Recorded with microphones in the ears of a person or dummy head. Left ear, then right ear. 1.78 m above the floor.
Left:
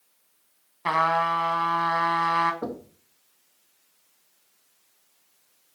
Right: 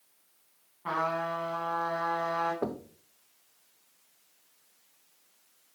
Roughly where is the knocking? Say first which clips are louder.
Left 1 dB; centre.